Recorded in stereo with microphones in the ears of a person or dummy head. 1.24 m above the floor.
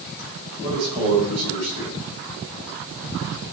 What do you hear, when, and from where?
0.6 s a man speaking: 40° right (ahead or behind), 4.5 m